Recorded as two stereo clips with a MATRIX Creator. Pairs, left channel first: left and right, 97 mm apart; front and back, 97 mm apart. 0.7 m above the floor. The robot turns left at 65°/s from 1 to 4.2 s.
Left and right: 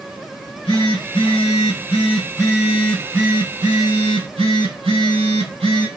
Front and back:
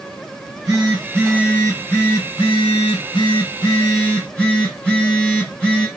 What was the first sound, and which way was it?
A phone buzzing, 130° left.